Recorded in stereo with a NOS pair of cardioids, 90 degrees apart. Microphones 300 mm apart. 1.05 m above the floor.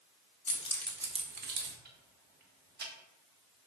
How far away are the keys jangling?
About 0.6 m.